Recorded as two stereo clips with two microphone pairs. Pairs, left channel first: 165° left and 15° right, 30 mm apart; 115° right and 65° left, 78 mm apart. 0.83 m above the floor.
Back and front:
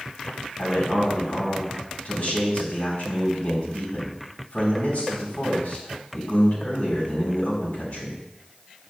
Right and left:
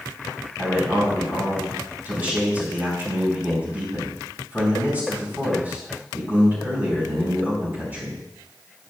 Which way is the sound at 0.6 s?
130° left.